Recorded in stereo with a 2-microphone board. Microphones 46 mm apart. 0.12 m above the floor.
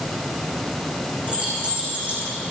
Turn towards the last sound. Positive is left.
turn(degrees=-25)  # may be behind; listen again after turning